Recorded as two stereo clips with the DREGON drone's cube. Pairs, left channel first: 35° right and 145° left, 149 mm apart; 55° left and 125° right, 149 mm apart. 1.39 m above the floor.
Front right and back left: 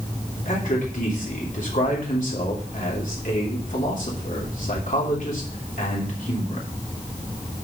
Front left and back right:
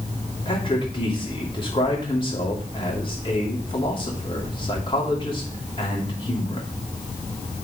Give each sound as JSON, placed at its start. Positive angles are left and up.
{"t": 0.5, "sound": "a man speaking", "azimuth_deg": 0, "distance_m": 2.5}